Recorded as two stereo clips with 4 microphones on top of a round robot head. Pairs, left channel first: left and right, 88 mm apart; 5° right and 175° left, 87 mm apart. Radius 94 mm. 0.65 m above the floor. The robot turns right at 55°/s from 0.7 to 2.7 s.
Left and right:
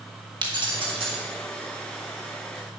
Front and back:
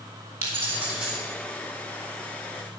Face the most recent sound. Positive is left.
turn(degrees=-10)